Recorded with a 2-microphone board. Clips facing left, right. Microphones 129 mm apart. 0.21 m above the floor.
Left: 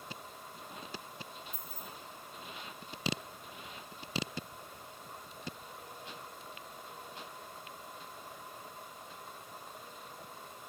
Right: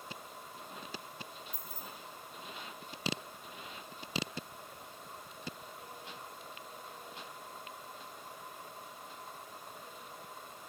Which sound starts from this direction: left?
Keys jangling, at 1.5 s.